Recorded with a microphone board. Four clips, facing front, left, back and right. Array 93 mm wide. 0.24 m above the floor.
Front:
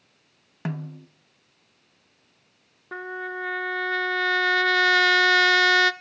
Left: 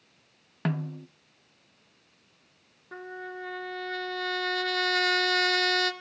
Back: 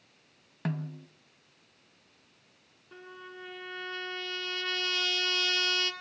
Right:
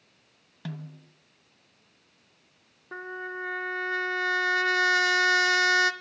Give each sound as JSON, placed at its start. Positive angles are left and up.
{"t": 0.7, "sound": "a snare drum", "azimuth_deg": 70, "distance_m": 0.7}
{"t": 2.9, "sound": "a trumpet", "azimuth_deg": -15, "distance_m": 1.0}